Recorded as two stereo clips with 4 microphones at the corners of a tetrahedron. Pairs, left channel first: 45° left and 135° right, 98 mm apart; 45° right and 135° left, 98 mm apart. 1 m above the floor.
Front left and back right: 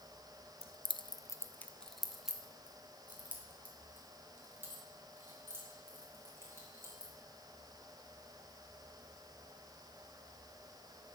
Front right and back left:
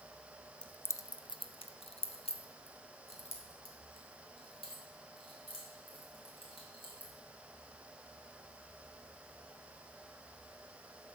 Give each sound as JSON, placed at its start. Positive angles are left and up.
{"t": 0.6, "sound": "keys jangling", "azimuth_deg": 35, "distance_m": 0.5}